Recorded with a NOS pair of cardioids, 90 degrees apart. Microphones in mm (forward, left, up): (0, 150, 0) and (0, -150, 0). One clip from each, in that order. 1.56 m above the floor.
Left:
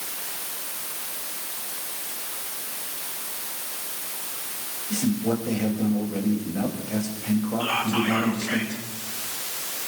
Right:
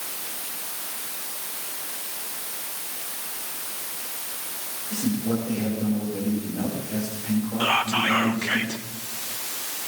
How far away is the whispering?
About 2 m.